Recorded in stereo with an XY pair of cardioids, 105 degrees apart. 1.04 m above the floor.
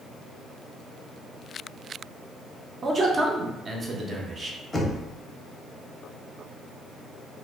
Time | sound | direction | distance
2.8 | a man speaking | 40° right | 0.6 m
4.7 | knocking | 25° left | 0.6 m